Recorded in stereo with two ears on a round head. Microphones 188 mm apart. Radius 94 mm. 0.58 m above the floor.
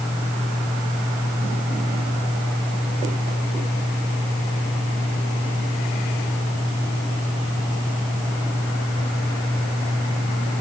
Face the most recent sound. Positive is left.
No sound to turn to.